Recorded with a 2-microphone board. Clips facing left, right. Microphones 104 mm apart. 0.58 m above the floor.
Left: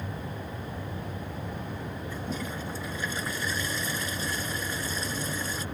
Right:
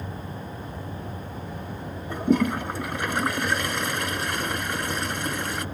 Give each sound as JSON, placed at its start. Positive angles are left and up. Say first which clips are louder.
{"t": 2.1, "sound": "a toilet flushing", "louder": "right 16 dB", "side_deg": -65}